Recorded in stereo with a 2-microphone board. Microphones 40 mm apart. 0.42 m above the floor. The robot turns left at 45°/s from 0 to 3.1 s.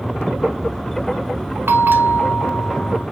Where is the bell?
105° right, 0.9 m; by 3.0 s 165° right, 0.9 m.